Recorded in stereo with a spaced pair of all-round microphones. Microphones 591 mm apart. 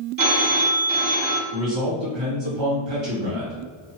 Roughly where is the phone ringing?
Right.